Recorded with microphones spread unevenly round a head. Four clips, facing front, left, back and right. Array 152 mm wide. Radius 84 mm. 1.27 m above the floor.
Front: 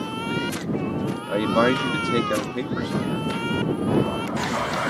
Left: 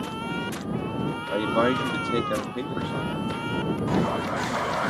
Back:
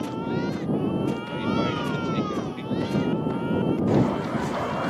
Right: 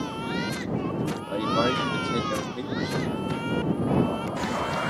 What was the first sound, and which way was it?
A man speaking, 15° left.